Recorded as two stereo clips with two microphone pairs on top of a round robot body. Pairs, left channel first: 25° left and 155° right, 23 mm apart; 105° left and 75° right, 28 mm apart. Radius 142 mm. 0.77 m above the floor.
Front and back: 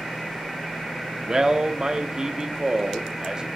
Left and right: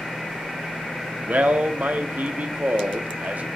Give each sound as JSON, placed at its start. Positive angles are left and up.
{"t": 1.3, "sound": "a man speaking", "azimuth_deg": -95, "distance_m": 1.5}